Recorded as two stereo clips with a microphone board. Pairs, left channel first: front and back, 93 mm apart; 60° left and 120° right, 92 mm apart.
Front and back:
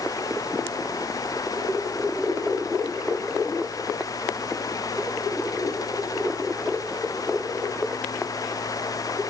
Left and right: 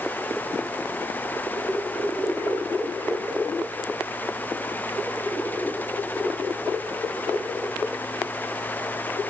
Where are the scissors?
I don't hear scissors.